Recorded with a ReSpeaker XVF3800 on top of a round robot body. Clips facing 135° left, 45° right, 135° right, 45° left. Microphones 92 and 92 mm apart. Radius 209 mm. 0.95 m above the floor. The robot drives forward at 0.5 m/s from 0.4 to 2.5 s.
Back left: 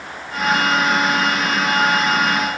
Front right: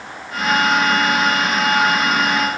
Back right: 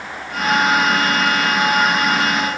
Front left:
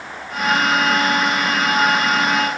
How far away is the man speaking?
I don't hear a man speaking.